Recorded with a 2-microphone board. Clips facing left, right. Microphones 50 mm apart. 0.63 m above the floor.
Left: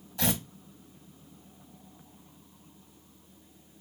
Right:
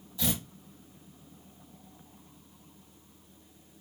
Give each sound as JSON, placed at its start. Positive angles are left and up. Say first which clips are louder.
{"t": 0.2, "sound": "tearing paper", "louder": "left 3 dB", "side_deg": 55, "distance_m": 0.7}